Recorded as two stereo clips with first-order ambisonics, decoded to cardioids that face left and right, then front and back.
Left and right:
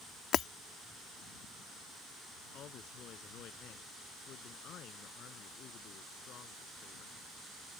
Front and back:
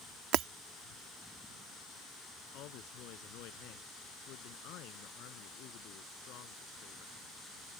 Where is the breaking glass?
145° left.